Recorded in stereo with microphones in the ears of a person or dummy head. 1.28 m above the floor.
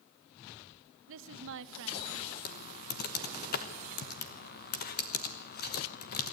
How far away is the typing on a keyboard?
About 1.0 m.